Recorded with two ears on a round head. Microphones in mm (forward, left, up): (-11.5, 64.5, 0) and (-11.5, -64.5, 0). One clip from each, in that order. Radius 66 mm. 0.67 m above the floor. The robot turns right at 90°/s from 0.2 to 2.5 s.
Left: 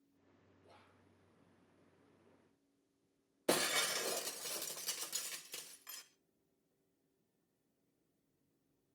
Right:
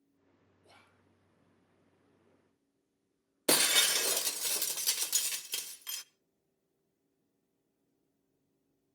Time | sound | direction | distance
0.6 | whispering | 70° right | 1.4 m
3.5 | breaking glass | 75° right (ahead or behind) | 0.9 m